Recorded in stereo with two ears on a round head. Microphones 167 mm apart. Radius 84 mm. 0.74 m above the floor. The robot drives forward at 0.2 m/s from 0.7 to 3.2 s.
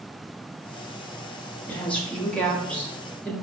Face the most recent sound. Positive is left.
turn(degrees=5)  # may be behind; listen again after turning